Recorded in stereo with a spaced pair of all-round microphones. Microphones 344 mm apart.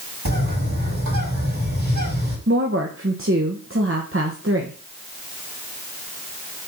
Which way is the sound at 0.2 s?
60° right (ahead or behind).